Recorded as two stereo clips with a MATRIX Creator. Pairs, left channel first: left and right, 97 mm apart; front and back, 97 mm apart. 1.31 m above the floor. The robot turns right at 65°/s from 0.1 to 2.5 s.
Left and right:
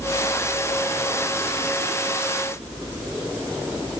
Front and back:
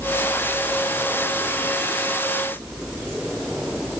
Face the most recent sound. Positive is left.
No sound to turn to.